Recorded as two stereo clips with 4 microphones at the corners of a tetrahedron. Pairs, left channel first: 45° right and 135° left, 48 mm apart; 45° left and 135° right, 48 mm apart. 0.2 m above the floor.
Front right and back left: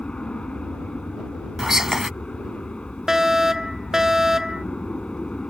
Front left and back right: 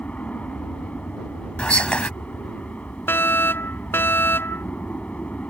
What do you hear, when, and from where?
0.0 s an aircraft: 10° left
1.6 s whispering: 70° left
3.1 s a fire alarm: 60° left